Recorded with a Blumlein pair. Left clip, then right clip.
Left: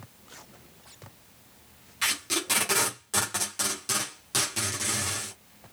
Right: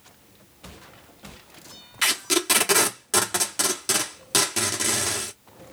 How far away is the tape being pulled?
About 1.2 m.